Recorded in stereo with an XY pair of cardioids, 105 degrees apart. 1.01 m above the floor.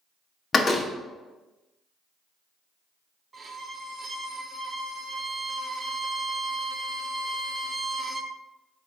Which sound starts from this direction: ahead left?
A door slam, at 0.5 s.